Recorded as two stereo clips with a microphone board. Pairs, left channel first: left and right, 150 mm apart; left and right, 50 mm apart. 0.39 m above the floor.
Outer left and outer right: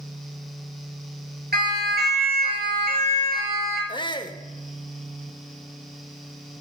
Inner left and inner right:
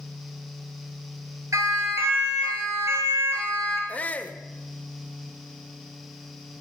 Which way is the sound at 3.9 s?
30° left (ahead or behind).